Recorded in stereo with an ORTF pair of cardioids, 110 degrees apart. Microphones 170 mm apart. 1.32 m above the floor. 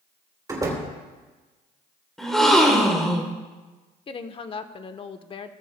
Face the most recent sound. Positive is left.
turn(degrees=35)